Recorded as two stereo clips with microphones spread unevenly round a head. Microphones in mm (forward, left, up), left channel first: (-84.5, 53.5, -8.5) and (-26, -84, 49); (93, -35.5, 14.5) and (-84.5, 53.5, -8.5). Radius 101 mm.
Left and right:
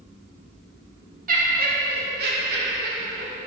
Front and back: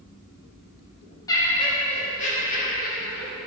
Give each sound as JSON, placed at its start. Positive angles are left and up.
{"t": 1.3, "sound": "laughter", "azimuth_deg": -100, "distance_m": 1.6}